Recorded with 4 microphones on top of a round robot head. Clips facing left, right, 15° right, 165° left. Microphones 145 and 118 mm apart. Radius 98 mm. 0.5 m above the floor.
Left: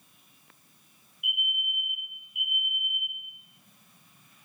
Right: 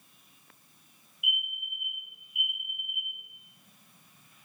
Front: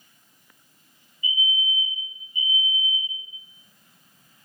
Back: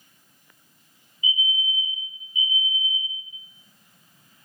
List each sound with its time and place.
1.2 s a fire alarm: 5° right, 3 m